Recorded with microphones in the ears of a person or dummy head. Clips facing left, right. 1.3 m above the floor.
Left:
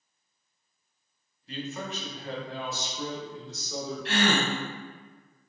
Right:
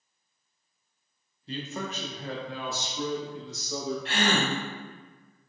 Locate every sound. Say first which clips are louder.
1.5 s a man speaking: right 1 dB; 30° right (ahead or behind), 0.8 m; by 4.0 s 60° right (ahead or behind), 2.5 m
4.0 s a gasp: left 3 dB; 60° left (ahead or behind), 1.4 m